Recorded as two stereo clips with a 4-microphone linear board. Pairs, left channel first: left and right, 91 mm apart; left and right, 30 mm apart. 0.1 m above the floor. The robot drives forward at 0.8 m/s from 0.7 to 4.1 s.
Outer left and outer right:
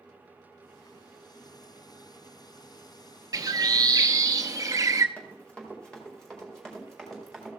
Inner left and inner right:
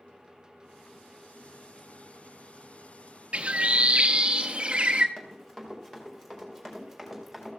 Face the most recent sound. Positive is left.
turn(degrees=0)  # may be behind; listen again after turning